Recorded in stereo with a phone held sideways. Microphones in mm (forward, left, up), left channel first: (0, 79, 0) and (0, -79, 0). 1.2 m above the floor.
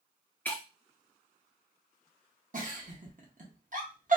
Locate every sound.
0.5 s breaking glass: 10° left (ahead or behind), 0.9 m
2.5 s a giggle: 55° right (ahead or behind), 1.0 m